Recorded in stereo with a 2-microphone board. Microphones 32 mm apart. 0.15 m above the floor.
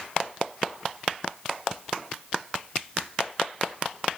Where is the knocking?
I don't hear knocking.